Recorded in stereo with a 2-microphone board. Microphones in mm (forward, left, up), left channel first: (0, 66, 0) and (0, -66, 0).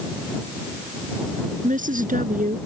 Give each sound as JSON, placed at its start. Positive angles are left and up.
{"t": 1.6, "sound": "a woman speaking", "side_deg": -80}